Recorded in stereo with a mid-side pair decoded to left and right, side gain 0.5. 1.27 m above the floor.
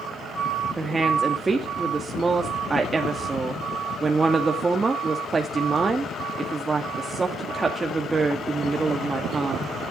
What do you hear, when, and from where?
0.8 s a woman speaking: 20° right, 2 m